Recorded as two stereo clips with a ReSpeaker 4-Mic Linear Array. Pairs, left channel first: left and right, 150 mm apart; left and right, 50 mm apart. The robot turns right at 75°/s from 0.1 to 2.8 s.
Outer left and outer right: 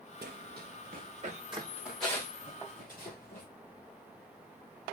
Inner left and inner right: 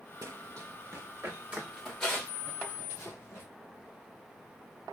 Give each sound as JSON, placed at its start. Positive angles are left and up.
{"t": 0.2, "sound": "running footsteps", "side_deg": -90, "distance_m": 0.9}